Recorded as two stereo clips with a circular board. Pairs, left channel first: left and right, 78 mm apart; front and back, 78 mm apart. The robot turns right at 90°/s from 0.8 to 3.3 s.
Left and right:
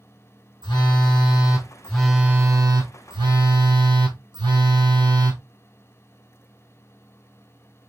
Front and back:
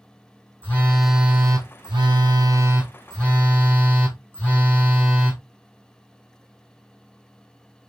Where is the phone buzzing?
70° left, 1.2 m; by 5.4 s 65° right, 1.2 m.